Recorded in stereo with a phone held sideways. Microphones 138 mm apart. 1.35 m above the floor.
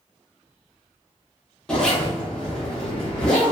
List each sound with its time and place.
1.7 s a zipper: 5° left (ahead or behind), 0.8 m